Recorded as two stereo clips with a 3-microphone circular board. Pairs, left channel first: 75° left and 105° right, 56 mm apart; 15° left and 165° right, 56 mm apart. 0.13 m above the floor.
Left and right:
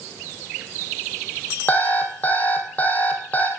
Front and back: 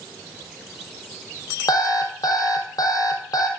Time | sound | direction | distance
1.7 | an alarm clock | 15° left | 1.9 m